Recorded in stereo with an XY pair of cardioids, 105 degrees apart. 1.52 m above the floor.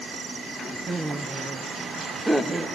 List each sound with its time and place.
0.9 s laughter: 15° right, 1.2 m